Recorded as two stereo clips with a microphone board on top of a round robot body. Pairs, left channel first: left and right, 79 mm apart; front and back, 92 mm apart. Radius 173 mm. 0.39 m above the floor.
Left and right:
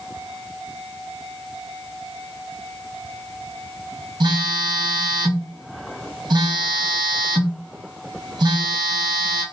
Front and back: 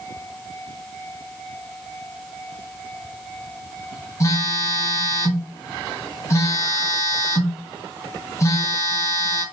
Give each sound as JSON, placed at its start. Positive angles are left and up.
{"t": 4.2, "sound": "a phone buzzing", "azimuth_deg": -55, "distance_m": 1.1}